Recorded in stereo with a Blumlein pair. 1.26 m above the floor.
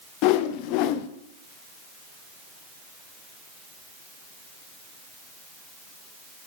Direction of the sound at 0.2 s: 45° left.